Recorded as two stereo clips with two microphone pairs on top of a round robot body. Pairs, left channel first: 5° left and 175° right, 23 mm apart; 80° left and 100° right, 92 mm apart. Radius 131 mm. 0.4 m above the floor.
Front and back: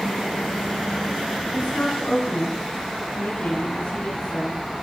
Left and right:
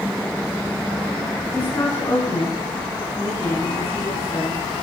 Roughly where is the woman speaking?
Ahead.